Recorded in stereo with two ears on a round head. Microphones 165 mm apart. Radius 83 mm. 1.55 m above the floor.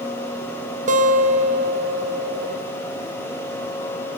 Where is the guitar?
40° right (ahead or behind), 0.5 m.